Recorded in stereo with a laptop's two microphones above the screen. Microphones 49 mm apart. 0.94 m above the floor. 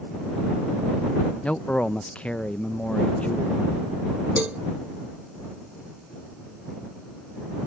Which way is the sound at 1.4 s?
25° left (ahead or behind).